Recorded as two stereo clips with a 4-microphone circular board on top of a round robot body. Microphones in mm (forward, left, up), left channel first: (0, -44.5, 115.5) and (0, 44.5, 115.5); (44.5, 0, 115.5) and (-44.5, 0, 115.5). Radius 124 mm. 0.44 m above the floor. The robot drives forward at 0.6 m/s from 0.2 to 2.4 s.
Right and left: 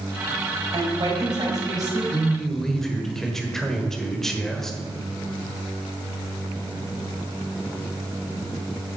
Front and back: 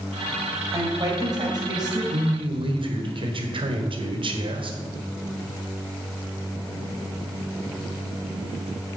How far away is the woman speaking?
About 3.5 m.